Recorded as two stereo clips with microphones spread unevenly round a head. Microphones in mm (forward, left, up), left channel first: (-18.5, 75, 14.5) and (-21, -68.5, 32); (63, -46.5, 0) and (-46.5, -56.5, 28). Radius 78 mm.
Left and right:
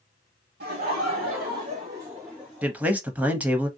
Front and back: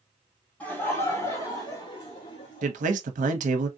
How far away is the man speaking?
About 0.7 m.